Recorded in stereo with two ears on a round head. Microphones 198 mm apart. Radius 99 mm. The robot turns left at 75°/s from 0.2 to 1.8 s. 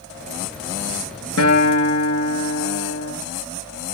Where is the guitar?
105° left, 4.5 m; by 3.1 s 75° left, 4.5 m.